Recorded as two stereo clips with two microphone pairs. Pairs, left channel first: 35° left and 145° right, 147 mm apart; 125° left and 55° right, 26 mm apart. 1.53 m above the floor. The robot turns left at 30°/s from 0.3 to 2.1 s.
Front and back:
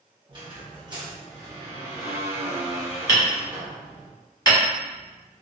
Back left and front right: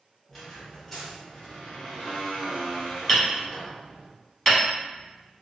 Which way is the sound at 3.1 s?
60° left.